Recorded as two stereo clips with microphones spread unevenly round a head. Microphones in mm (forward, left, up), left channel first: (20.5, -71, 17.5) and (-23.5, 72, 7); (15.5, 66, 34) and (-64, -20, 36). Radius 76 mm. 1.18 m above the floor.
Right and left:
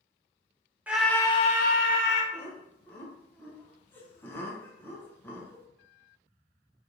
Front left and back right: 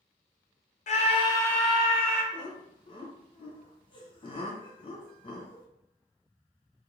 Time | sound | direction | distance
0.9 | a scream | 25° left | 0.8 m
2.3 | laughter | 5° left | 1.0 m